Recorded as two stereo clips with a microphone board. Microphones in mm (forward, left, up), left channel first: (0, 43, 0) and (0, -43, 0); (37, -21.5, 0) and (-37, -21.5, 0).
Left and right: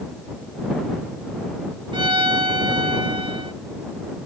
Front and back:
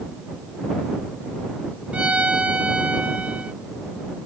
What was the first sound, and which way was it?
A violin, 105° right.